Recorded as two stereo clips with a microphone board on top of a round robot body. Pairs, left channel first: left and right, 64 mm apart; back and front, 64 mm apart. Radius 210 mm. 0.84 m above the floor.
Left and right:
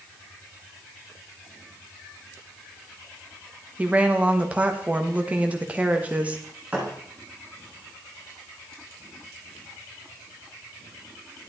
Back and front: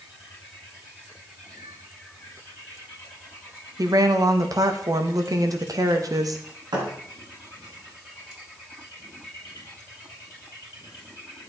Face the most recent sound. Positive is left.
turn(degrees=-15)